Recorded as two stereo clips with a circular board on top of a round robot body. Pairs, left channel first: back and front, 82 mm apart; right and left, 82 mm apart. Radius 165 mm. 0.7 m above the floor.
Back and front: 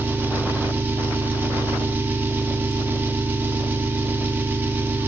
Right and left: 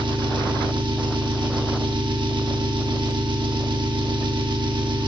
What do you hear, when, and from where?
0.0 s an engine running: 65° left, 1.4 m